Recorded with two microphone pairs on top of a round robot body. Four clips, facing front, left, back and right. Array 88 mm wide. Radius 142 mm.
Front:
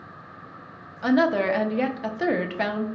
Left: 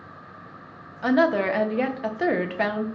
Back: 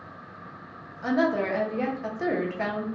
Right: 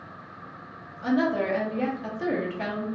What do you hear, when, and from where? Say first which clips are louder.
1.0 s a woman speaking: left 4 dB, front 4 dB; 70° left, 0.5 m